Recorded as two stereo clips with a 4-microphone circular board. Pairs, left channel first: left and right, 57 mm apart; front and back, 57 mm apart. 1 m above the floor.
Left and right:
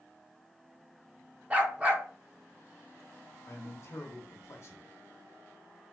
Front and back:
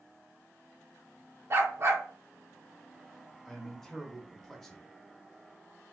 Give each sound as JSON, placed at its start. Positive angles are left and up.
{"t": 1.5, "sound": "a dog barking", "azimuth_deg": -150, "distance_m": 0.8}
{"t": 3.5, "sound": "a man speaking", "azimuth_deg": 85, "distance_m": 0.9}